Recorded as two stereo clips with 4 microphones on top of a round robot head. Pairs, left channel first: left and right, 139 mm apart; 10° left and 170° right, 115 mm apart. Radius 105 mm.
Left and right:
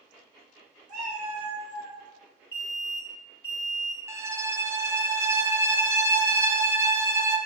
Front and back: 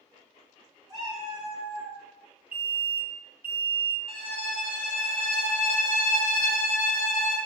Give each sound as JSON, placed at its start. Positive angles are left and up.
{"t": 0.9, "sound": "a cat meowing", "azimuth_deg": -65, "distance_m": 0.9}
{"t": 2.5, "sound": "an alarm", "azimuth_deg": 140, "distance_m": 1.5}
{"t": 4.1, "sound": "a violin", "azimuth_deg": -20, "distance_m": 0.6}